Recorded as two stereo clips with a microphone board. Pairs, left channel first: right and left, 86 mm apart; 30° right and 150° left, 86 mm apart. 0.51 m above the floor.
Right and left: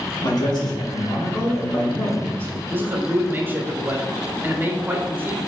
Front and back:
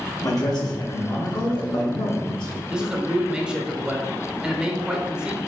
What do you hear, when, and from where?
0.2 s a man speaking: 70° right, 1.6 m; by 2.6 s 15° right, 1.5 m
2.7 s a man speaking: 85° left, 0.7 m